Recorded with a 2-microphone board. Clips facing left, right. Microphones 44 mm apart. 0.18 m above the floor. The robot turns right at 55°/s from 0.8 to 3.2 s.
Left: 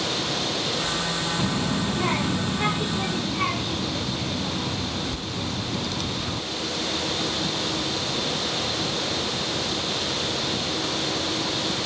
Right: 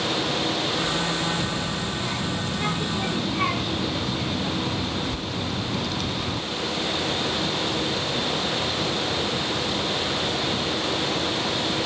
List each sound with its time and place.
1.4 s a child speaking: 45° left (ahead or behind), 0.8 m; by 6.4 s 5° right (ahead or behind), 0.8 m